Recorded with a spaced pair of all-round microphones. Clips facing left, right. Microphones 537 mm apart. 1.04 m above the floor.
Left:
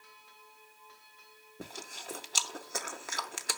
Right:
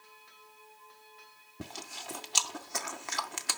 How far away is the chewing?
About 0.6 m.